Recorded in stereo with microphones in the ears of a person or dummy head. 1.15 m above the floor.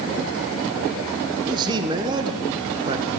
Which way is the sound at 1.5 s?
25° right (ahead or behind).